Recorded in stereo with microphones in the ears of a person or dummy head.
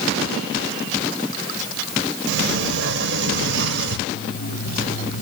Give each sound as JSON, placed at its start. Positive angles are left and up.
{"t": 2.3, "sound": "a sliding door", "side_deg": -65, "distance_m": 1.2}
{"t": 4.1, "sound": "an alarm clock", "side_deg": 45, "distance_m": 1.4}